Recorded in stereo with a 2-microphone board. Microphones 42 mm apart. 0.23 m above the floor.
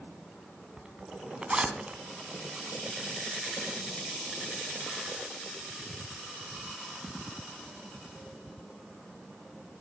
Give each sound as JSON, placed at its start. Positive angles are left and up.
{"t": 0.8, "sound": "a zipper", "side_deg": -20, "distance_m": 2.5}